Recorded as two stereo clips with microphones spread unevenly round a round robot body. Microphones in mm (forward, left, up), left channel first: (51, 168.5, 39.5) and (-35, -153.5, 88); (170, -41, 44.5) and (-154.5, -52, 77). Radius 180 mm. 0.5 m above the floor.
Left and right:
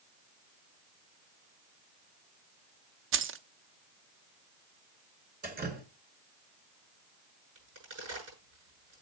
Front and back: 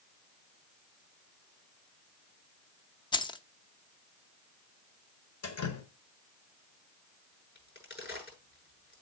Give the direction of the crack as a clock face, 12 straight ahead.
2 o'clock.